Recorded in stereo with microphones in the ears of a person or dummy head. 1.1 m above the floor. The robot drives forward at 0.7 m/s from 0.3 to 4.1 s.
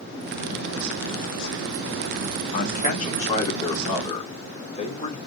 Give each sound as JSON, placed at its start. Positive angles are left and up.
{"t": 2.5, "sound": "a man speaking", "side_deg": 45, "distance_m": 2.0}